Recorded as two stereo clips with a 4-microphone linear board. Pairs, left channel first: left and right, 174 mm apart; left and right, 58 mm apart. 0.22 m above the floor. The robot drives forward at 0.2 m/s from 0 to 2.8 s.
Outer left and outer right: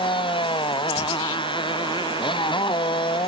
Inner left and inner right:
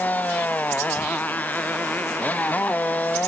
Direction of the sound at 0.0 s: 30° left (ahead or behind).